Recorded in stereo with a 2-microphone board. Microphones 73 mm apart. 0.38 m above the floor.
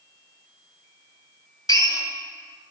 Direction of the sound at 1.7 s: 60° left (ahead or behind).